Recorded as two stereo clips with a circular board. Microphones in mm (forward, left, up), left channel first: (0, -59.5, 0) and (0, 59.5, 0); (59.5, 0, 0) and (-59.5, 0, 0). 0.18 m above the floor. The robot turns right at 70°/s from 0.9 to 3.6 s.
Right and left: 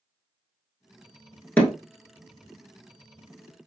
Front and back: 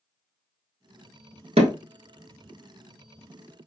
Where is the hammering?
165° right, 1.0 m; by 1.7 s 155° right, 1.0 m.